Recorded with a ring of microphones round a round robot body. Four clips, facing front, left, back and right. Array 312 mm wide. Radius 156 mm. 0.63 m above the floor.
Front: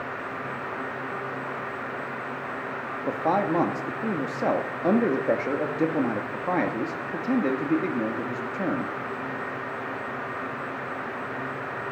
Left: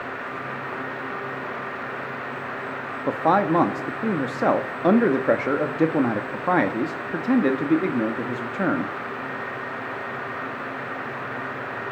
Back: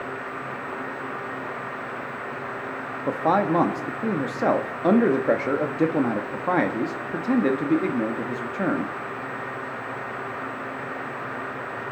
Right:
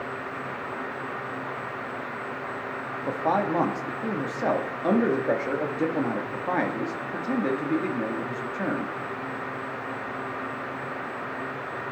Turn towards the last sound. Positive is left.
turn(degrees=110)